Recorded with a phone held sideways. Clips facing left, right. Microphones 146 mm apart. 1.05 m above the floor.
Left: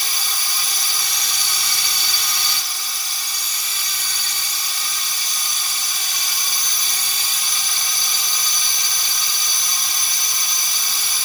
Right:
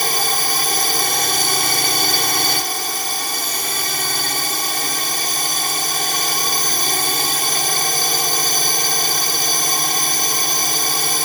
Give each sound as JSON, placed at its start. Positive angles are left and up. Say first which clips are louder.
{"t": 0.0, "sound": "a drone", "louder": "right 11 dB", "side_deg": -60}